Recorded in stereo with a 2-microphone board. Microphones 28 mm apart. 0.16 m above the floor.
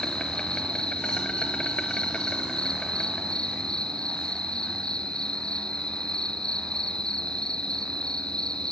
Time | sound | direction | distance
0.0 | an insect | 35° left (ahead or behind) | 1.8 m